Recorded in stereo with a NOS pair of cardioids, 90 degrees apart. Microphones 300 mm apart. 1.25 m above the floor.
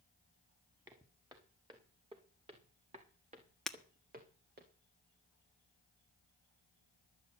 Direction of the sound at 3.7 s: Straight ahead.